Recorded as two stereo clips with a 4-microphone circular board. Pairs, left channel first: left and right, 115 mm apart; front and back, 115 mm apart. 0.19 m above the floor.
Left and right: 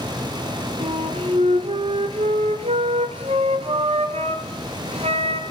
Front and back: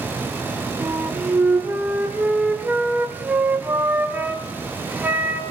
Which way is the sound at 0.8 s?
105° right.